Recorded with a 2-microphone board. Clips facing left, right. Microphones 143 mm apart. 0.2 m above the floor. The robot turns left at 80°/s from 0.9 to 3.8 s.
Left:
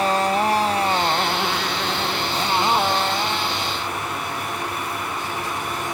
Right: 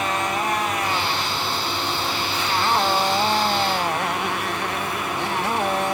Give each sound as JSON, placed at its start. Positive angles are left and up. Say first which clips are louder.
{"t": 0.0, "sound": "a motorcycle", "louder": "left 5 dB", "side_deg": 35}